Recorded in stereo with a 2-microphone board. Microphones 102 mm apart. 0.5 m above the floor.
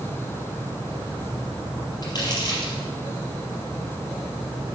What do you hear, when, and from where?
2.0 s crumpling: 40° left (ahead or behind), 4 m